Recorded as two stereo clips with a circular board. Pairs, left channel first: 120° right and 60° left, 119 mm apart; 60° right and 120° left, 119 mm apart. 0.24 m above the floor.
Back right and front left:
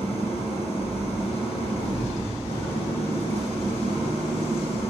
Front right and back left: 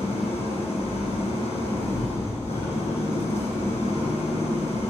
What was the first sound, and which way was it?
An engine running, 85° right.